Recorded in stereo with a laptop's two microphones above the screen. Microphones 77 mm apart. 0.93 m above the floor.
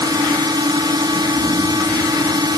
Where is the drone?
70° right (ahead or behind).